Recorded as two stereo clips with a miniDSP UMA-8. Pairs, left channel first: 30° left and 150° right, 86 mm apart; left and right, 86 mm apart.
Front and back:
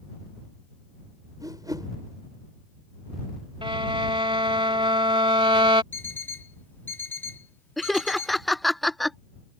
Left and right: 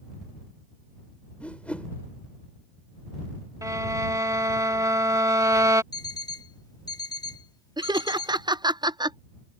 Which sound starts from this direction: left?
An alarm clock, at 5.9 s.